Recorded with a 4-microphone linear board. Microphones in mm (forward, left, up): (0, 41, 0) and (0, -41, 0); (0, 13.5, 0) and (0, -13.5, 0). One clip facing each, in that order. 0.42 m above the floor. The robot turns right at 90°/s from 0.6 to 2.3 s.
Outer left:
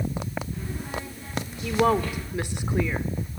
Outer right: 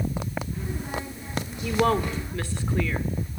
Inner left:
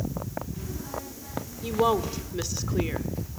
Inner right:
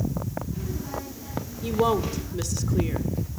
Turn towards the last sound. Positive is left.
turn(degrees=20)  # may be behind; listen again after turning